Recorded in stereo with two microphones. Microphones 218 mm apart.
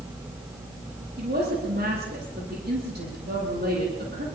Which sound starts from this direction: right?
A woman speaking, at 1.2 s.